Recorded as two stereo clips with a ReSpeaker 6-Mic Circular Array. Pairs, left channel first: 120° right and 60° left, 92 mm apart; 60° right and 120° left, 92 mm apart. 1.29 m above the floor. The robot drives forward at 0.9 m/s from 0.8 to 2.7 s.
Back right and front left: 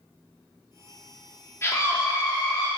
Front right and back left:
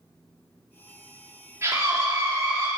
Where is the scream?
Straight behind, 3 m.